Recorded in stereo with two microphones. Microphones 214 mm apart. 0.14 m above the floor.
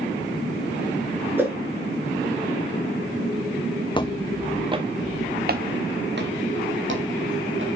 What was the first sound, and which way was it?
A whoosh, 10° right (ahead or behind).